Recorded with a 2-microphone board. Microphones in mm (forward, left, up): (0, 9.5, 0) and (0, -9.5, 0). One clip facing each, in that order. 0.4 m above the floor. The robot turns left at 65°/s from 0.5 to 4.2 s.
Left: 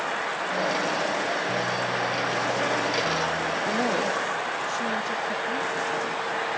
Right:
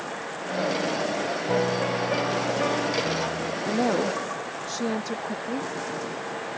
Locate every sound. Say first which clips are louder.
1.5 s a piano: right 2 dB; 95° right; by 3.6 s 130° left
3.7 s a woman speaking: right 3 dB; 5° left; by 5.7 s 30° right